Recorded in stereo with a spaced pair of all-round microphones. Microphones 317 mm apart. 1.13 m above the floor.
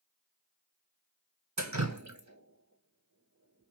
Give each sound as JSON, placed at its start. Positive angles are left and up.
{"t": 1.6, "sound": "dripping", "side_deg": -55, "distance_m": 1.0}